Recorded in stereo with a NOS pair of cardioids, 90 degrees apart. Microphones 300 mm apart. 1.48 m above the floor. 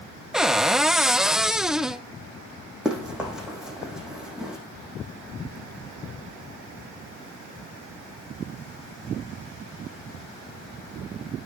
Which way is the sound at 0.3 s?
Straight ahead.